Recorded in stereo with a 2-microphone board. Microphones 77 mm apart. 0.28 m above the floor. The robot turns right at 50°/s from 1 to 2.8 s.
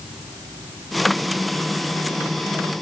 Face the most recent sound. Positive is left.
No sound to turn to.